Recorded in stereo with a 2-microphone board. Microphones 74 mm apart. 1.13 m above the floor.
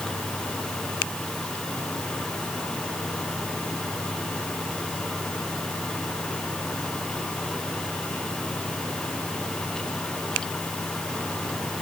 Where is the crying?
No crying in this recording.